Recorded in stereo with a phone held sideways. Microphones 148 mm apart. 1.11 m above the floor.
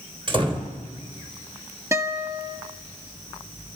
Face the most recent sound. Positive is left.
turn(degrees=-20)  # may be behind; listen again after turning